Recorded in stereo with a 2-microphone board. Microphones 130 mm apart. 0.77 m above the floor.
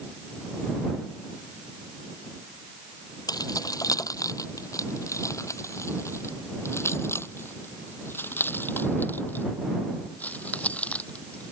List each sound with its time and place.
3.3 s keys jangling: 30° left (ahead or behind); by 11.5 s 10° left (ahead or behind)